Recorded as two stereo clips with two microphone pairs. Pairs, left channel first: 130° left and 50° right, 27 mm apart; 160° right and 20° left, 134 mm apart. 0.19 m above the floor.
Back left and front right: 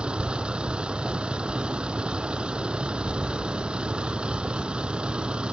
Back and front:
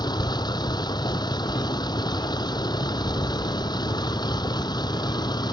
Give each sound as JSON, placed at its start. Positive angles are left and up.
{"t": 0.0, "sound": "a vehicle", "azimuth_deg": -105}